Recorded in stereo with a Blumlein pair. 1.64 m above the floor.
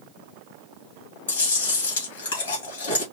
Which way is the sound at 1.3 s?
65° left.